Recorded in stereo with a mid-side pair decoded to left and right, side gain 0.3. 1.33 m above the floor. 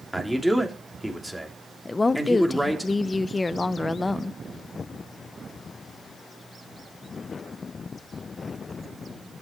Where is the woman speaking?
35° left, 0.9 m.